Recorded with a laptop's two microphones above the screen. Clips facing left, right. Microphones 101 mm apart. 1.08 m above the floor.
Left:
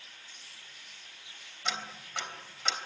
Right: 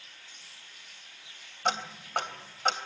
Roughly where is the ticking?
Right.